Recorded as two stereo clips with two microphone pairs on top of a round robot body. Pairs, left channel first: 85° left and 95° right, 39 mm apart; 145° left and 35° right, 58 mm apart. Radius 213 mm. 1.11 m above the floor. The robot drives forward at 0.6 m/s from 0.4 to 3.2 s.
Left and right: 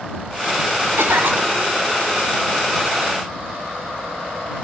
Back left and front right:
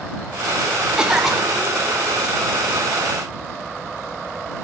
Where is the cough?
110° right, 1.4 m; by 1.8 s 130° right, 1.6 m.